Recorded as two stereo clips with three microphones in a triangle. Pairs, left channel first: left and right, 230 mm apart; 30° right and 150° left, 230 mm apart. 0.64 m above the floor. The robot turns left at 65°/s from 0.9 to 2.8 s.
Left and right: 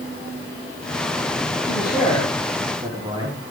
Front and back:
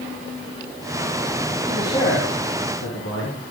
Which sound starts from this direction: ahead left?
A man speaking, at 1.6 s.